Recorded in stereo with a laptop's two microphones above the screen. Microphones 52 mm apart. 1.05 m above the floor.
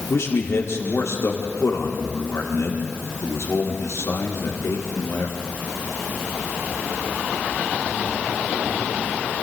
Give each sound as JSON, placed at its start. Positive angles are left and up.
{"t": 0.1, "sound": "a man speaking", "side_deg": 80, "distance_m": 3.5}